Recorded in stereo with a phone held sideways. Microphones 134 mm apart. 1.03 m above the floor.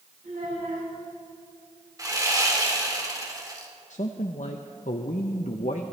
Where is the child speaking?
80° right, 5 m.